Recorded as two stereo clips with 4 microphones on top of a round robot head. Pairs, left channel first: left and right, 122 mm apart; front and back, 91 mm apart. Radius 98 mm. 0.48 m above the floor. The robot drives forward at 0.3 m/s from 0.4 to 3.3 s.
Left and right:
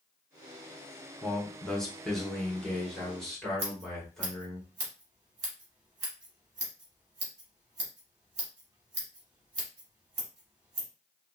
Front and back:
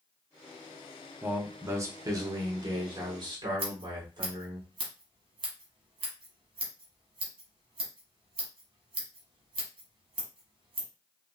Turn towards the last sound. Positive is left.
turn(degrees=-150)